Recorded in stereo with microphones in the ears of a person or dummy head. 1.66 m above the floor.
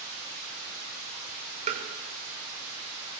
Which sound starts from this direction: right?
Tapping, at 1.7 s.